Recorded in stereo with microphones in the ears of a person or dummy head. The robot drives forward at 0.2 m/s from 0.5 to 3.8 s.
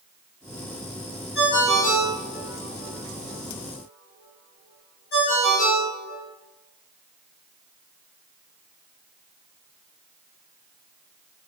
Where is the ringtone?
60° left (ahead or behind), 1.7 m; by 6.2 s 50° left (ahead or behind), 1.9 m.